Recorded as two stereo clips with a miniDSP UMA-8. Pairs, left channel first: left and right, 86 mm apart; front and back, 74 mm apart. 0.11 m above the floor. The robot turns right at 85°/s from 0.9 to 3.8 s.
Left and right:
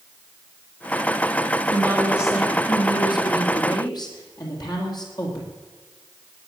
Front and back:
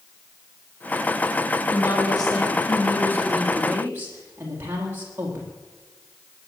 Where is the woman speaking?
55° right, 4.5 m; by 5.5 s 120° left, 4.5 m.